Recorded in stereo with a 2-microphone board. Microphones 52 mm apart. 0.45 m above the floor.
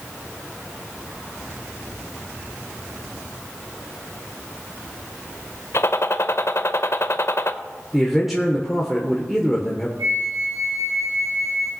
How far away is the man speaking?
About 1.3 m.